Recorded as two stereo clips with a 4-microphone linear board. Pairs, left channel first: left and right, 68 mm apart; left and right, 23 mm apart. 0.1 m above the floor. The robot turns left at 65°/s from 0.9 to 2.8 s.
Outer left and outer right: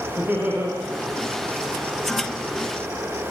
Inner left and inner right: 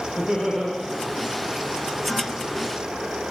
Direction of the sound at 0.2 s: 20° right (ahead or behind).